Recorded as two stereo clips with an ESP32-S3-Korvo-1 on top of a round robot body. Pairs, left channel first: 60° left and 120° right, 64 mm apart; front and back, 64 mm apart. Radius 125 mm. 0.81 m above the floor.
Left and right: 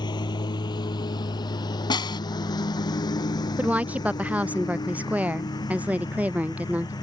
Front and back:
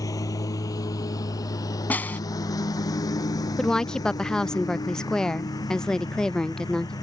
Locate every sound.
0.0 s a lawn mower: 40° left; by 7.0 s 35° left
1.9 s a snare drum: 70° left
3.6 s a woman speaking: 75° right